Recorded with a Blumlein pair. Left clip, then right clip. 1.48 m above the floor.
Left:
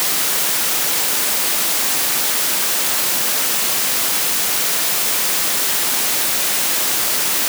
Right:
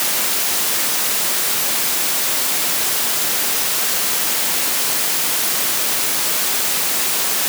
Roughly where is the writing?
No writing in this recording.